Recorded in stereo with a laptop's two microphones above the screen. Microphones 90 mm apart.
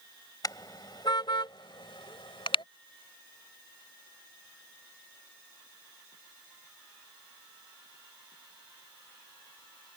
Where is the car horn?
45° left (ahead or behind); by 2.6 s 75° left (ahead or behind).